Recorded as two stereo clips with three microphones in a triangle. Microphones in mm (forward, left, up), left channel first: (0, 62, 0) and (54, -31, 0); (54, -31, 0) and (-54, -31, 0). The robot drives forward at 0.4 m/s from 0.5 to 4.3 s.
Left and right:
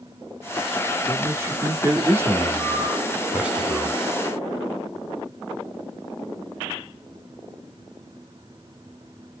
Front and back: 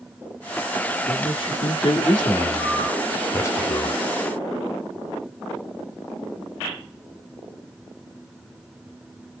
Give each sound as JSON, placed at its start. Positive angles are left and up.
{"t": 1.1, "sound": "a man speaking", "azimuth_deg": 0, "distance_m": 1.8}